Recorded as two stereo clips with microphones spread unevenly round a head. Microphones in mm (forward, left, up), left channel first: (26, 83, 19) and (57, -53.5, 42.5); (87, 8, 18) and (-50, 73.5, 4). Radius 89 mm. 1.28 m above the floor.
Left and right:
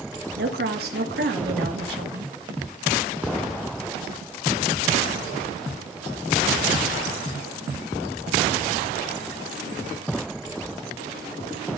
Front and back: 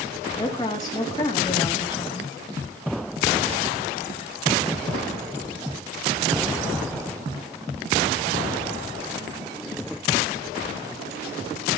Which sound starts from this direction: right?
A woman speaking, at 0.4 s.